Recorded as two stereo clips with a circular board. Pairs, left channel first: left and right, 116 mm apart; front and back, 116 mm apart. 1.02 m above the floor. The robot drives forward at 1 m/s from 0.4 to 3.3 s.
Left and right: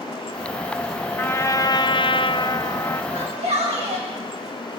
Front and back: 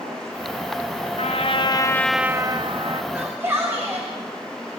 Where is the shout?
110° right, 3.5 m.